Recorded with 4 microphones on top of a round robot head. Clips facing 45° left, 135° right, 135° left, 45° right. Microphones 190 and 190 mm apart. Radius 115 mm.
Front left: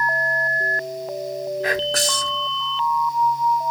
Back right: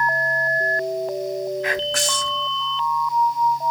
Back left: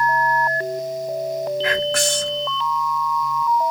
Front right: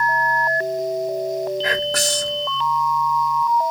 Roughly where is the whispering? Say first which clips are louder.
Front left 2 dB, back left 2 dB; ahead.